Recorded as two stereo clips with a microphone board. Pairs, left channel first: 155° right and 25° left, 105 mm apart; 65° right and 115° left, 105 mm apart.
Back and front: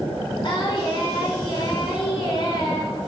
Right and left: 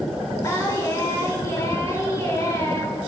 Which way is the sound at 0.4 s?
125° right.